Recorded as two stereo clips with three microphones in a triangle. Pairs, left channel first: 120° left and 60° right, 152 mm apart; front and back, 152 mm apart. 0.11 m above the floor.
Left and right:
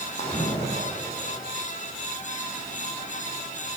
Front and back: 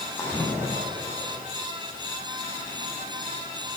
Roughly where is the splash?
Left.